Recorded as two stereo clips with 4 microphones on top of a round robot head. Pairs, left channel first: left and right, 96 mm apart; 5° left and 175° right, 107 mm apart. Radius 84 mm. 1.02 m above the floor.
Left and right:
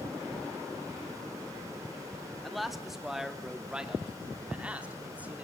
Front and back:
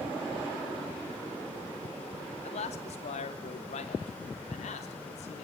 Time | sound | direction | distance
2.4 | a man speaking | straight ahead | 2.5 m